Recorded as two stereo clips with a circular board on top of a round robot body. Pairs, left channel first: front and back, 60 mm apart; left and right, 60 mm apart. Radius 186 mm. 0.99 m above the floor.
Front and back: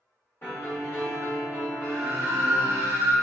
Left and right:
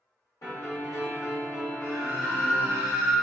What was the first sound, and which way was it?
A piano, 55° left.